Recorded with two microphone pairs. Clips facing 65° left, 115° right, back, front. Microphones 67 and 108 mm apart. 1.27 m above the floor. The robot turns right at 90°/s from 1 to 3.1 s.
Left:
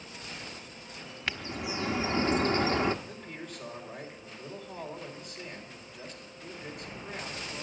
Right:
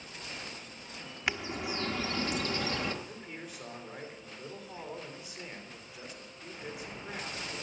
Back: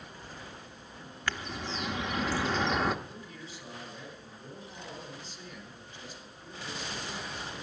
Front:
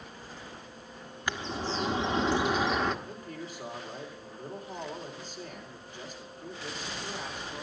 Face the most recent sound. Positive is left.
turn(degrees=-35)